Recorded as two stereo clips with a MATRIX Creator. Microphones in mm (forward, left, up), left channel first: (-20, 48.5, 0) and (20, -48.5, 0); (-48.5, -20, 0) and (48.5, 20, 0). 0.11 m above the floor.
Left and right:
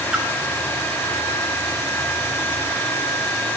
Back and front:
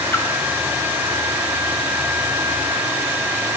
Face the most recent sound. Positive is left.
turn(degrees=-135)